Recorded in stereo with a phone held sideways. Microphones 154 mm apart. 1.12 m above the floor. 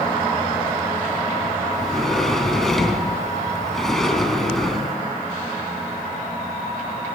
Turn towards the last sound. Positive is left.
turn(degrees=0)  # may be behind; listen again after turning